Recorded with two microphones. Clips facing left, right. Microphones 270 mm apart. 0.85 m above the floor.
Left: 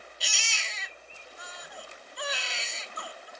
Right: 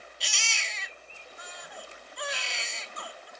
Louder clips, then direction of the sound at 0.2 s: Even; centre (ahead or behind).